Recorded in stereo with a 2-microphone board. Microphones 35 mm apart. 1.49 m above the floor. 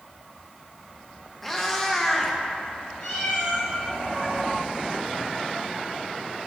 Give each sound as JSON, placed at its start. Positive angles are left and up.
{"t": 1.4, "sound": "a cat meowing", "side_deg": 10, "distance_m": 0.7}
{"t": 3.0, "sound": "a cat meowing", "side_deg": 40, "distance_m": 2.5}